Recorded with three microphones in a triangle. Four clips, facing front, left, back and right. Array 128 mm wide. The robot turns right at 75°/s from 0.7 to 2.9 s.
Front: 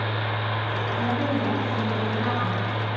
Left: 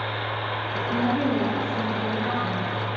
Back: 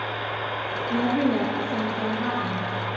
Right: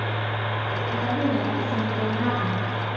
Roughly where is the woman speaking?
Behind left.